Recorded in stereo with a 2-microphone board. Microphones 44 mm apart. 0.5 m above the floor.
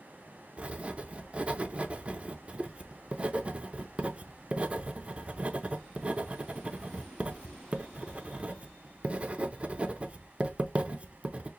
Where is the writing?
25° right (ahead or behind), 0.5 m.